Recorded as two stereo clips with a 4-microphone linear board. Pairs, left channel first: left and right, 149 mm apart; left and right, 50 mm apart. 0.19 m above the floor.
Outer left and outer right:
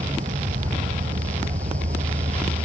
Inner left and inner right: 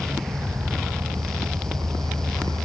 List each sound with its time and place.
0.0 s an insect: 65° right (ahead or behind)